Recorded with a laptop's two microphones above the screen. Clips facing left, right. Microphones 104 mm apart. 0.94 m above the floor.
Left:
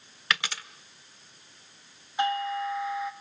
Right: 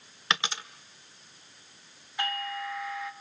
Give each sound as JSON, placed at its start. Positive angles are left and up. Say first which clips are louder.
{"t": 0.3, "sound": "a dropped coin", "louder": "right 1 dB", "side_deg": -25, "distance_m": 1.3}
{"t": 2.2, "sound": "a doorbell", "louder": "left 6 dB", "side_deg": 20, "distance_m": 2.5}